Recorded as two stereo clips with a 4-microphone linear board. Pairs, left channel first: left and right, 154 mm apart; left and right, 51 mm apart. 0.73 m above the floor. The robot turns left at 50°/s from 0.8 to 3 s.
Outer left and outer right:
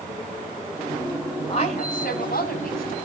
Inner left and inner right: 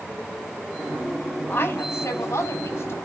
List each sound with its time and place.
1.5 s a woman speaking: 145° left, 4.5 m; by 3.0 s 70° left, 4.5 m